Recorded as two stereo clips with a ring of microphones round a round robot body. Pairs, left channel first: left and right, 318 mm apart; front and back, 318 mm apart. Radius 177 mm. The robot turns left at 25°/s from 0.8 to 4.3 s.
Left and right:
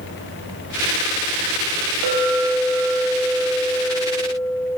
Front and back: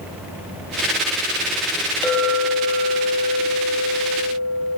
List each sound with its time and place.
2.0 s a clink: 85° right, 1.3 m; by 4.8 s 140° right, 1.3 m